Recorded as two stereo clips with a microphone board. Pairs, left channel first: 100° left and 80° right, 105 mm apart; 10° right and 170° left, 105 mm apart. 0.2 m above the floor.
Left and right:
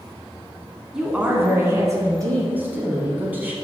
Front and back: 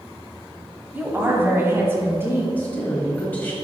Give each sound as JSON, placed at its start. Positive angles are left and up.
{"t": 0.9, "sound": "a woman speaking", "azimuth_deg": -155, "distance_m": 1.2}
{"t": 2.6, "sound": "a woman speaking", "azimuth_deg": -50, "distance_m": 1.0}